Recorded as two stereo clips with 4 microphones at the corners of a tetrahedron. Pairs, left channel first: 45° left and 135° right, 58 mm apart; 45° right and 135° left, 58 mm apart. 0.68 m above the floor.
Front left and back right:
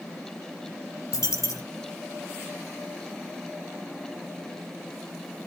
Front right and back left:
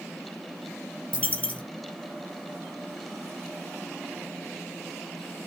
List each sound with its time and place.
1.1 s a dropped coin: 20° left, 2.0 m